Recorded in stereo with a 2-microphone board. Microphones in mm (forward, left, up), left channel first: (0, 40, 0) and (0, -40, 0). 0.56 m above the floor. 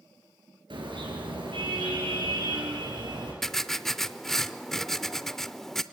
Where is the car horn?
80° right, 5 m; by 3.3 s 65° right (ahead or behind), 7 m.